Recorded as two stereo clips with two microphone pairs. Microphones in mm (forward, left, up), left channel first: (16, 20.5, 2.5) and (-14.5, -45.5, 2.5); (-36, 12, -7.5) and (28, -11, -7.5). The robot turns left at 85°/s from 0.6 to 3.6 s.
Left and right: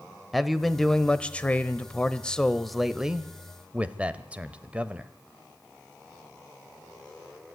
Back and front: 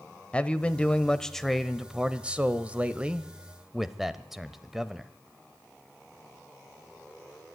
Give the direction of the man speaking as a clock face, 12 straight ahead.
7 o'clock.